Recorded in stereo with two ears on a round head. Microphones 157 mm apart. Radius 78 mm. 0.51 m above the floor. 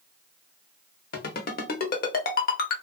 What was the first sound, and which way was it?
A ringtone, 50° left (ahead or behind).